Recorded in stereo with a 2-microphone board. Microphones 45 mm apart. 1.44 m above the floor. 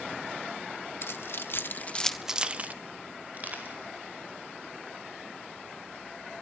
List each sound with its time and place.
1.0 s keys jangling: 65° left (ahead or behind), 1.5 m; by 2.7 s 35° right (ahead or behind), 1.1 m
3.3 s crushing: 40° right (ahead or behind), 4.5 m